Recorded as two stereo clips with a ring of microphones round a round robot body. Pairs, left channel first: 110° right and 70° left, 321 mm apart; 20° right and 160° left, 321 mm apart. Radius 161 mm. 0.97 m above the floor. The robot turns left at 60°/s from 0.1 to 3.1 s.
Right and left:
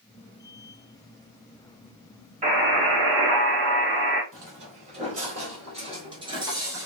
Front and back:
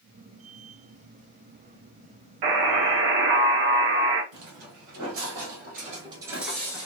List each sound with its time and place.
2.4 s a buzzer: 135° left, 1.1 m; by 4.2 s 95° left, 1.1 m
4.3 s footsteps: 135° left, 1.6 m; by 6.9 s 10° left, 0.9 m